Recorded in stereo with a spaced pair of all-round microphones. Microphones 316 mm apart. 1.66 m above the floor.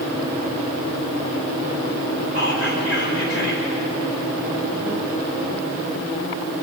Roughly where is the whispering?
Left.